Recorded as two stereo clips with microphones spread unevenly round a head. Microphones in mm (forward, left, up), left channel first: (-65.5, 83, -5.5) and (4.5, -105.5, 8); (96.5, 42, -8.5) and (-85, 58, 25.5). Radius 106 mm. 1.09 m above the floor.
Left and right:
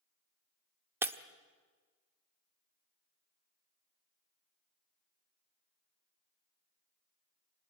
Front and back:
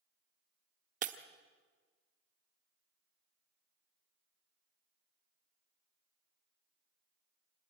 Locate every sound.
1.0 s breaking glass: 145° right, 1.0 m